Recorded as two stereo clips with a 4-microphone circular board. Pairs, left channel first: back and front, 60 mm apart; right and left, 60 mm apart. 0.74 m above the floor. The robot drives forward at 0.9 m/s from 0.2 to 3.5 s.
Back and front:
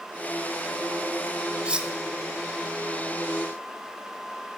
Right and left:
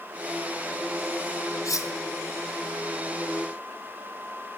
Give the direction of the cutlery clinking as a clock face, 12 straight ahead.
2 o'clock.